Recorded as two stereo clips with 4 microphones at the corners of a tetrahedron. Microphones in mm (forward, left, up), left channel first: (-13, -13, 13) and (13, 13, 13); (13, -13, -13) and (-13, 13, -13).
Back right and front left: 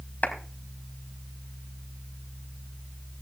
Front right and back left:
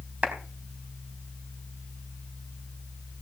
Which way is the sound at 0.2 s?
170° right.